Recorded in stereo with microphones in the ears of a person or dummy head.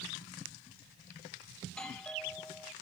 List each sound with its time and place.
1.6 s a doorbell: 5° left (ahead or behind)